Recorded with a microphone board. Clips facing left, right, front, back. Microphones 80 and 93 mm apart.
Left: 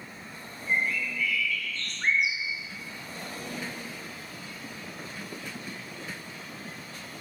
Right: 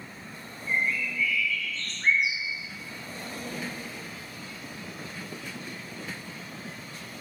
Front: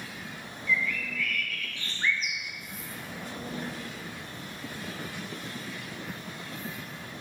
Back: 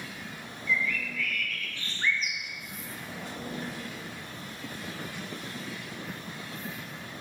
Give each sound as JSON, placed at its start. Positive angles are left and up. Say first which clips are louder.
{"t": 0.7, "sound": "a bird", "louder": "even, even", "azimuth_deg": 90, "distance_m": 0.8}